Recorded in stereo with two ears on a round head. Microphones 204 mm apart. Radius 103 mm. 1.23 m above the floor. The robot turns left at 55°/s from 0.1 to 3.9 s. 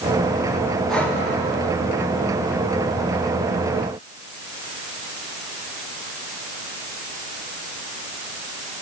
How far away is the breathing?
About 2.5 m.